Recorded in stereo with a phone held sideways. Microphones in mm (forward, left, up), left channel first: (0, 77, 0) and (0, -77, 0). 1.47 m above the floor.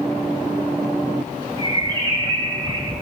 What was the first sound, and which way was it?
A bird, 30° right (ahead or behind).